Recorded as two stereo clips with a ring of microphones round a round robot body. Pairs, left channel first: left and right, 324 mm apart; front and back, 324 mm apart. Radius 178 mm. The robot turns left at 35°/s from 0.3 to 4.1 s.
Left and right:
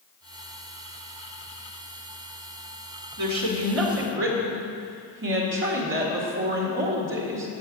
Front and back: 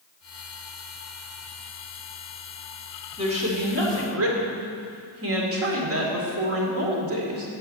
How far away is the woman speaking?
About 2 m.